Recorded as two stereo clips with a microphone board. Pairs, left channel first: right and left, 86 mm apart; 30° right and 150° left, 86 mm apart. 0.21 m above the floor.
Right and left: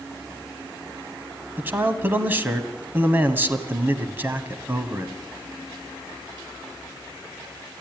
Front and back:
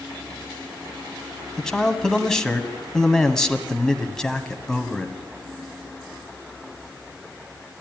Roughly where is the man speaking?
Ahead left.